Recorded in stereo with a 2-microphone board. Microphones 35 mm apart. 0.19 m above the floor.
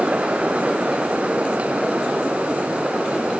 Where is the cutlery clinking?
I don't hear cutlery clinking.